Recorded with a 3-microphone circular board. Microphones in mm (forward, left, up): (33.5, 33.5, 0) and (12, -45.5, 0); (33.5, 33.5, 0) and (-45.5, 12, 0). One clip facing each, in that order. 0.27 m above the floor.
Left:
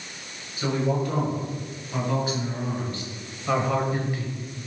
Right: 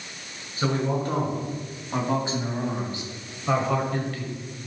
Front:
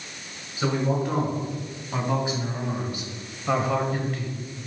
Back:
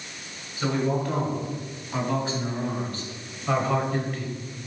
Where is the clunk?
No clunk in this recording.